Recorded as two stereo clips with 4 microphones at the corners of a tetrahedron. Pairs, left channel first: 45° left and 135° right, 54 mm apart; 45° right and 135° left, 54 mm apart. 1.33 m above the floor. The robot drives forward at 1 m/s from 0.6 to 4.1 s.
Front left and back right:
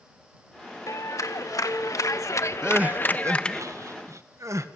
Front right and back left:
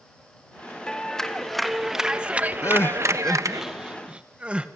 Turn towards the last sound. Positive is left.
turn(degrees=-155)